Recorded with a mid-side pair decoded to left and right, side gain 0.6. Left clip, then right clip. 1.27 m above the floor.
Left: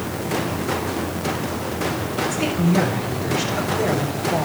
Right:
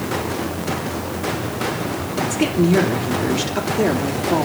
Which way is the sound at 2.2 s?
50° right.